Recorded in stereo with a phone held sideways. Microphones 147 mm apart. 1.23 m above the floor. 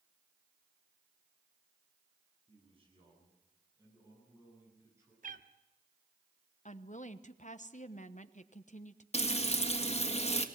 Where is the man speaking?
40° right (ahead or behind), 8.5 m; by 5.1 s 15° right (ahead or behind), 8.5 m.